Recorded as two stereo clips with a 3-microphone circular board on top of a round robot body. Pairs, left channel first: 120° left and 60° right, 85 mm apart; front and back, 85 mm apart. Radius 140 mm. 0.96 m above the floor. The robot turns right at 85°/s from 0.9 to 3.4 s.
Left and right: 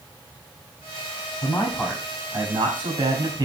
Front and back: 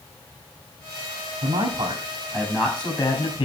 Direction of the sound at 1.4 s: 170° left.